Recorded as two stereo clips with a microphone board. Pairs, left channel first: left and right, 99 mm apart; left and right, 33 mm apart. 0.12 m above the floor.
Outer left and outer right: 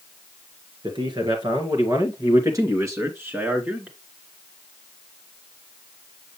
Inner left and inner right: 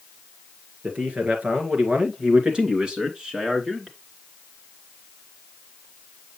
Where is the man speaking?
50° right (ahead or behind), 2.5 m; by 4.0 s 10° right (ahead or behind), 1.9 m.